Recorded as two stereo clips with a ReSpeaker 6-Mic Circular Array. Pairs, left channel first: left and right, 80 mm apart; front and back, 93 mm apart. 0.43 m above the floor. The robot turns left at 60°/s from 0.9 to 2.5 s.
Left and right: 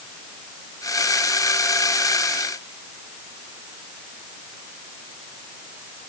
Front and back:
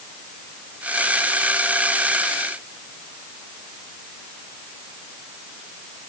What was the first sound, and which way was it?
Only background noise.